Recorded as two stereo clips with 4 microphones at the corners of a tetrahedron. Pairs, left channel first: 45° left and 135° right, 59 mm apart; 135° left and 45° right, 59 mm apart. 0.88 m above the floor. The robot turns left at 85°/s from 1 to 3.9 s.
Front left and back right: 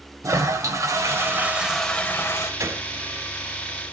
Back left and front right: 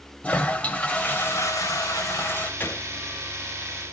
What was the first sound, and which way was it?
A toilet flushing, 160° right.